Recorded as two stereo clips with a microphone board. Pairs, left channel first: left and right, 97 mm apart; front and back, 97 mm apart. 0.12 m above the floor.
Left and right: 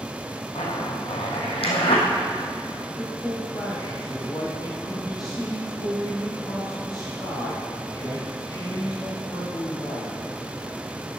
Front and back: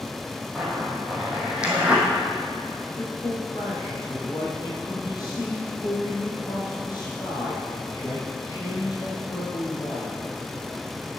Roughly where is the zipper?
Left.